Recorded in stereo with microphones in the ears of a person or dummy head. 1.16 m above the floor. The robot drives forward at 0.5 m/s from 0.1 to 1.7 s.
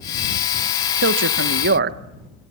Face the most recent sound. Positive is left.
turn(degrees=-55)  # may be behind; listen again after turning